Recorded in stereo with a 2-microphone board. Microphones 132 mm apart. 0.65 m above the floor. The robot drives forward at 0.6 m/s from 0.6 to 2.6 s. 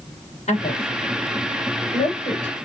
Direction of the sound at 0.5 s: 60° left (ahead or behind).